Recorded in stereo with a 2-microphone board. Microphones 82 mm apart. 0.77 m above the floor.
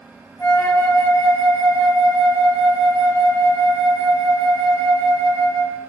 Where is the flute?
40° left (ahead or behind), 1.5 m.